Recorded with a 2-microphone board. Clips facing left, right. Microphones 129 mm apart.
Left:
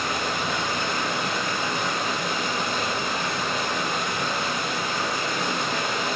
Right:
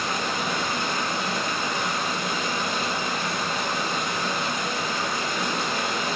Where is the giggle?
No giggle in this recording.